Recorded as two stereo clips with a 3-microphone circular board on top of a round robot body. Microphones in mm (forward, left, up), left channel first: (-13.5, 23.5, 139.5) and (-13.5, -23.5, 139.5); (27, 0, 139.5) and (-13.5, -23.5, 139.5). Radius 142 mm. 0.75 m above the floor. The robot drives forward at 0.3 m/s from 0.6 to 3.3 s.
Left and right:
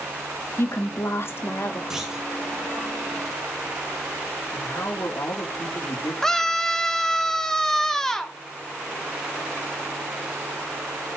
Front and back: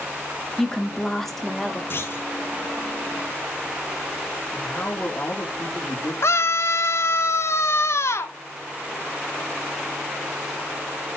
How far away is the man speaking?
About 2 m.